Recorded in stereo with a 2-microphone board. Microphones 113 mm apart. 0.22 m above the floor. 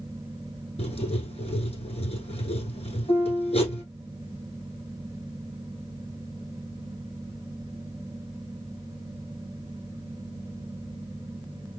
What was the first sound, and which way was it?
Writing, 65° left (ahead or behind).